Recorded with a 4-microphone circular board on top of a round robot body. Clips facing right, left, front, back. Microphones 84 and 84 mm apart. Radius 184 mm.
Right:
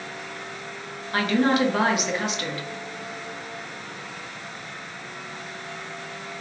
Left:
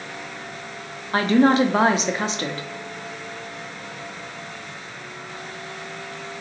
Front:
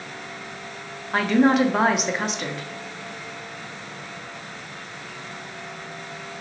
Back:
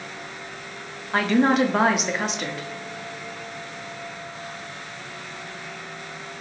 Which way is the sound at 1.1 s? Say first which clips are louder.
Left 5 dB, front 1 dB; 90° left.